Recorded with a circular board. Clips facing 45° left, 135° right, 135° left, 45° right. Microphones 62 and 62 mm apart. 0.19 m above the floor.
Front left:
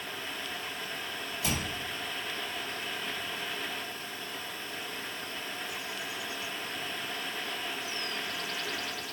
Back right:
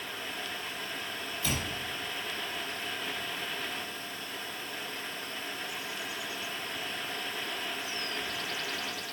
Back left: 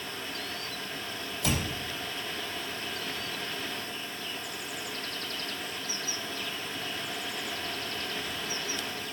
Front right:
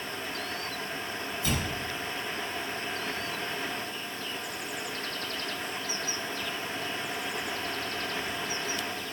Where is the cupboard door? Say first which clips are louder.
Front left 1 dB, back left 1 dB; 120° left, 6 m.